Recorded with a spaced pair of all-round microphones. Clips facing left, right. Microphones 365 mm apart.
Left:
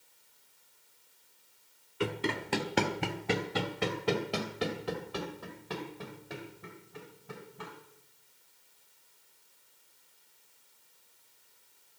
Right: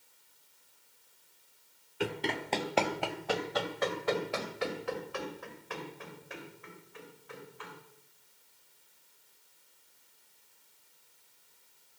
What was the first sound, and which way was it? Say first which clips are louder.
Running footsteps: left 1 dB; 10° left (ahead or behind).